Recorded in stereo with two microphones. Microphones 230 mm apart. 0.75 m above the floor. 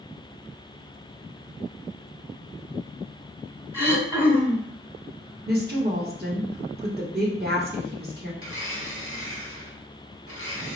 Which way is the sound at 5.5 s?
45° right (ahead or behind).